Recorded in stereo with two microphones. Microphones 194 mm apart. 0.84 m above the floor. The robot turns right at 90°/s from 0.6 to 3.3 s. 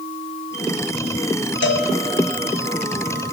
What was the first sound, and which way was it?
A cowbell, 70° left (ahead or behind).